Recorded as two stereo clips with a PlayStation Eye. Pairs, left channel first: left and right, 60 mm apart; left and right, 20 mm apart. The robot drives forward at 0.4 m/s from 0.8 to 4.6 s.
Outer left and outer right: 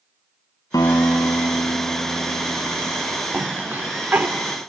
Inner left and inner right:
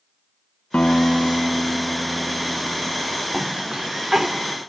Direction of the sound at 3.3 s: 30° right (ahead or behind).